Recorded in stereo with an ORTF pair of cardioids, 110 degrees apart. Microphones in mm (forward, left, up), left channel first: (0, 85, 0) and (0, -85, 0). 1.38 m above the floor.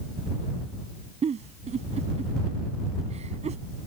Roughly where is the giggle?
Ahead right.